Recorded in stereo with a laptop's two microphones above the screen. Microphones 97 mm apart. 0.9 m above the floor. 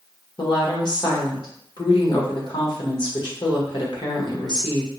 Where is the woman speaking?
45° left (ahead or behind), 0.9 m.